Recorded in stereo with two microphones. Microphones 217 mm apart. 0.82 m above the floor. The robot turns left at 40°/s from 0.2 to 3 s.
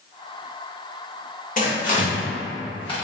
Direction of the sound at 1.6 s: 40° left (ahead or behind).